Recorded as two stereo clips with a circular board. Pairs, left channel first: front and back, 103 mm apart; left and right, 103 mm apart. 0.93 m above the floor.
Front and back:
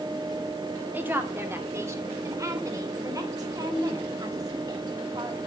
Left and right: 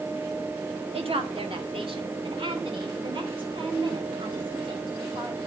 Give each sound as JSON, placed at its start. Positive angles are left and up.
{"t": 0.9, "sound": "a woman speaking", "azimuth_deg": -110, "distance_m": 2.0}